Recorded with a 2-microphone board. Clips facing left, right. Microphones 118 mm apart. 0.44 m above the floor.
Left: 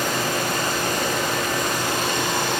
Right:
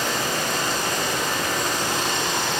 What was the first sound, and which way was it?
Running water, 55° left (ahead or behind).